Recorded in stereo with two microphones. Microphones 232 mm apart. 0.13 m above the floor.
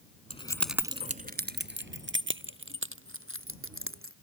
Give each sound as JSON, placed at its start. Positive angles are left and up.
{"t": 0.3, "sound": "keys jangling", "side_deg": 30}